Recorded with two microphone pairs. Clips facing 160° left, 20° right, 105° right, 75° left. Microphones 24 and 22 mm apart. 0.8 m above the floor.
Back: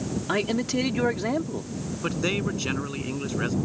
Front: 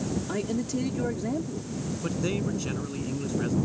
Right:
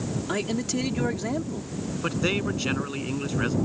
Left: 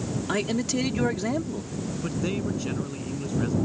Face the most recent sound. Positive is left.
turn(degrees=-155)